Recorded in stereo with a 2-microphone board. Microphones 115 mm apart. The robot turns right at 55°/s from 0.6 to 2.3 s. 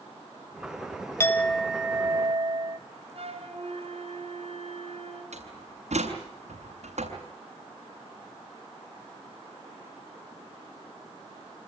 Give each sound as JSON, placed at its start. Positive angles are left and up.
{"t": 1.2, "sound": "a clink", "azimuth_deg": 155, "distance_m": 1.2}
{"t": 3.1, "sound": "a flute", "side_deg": -55, "distance_m": 7.0}
{"t": 5.3, "sound": "a door slam", "side_deg": -75, "distance_m": 7.0}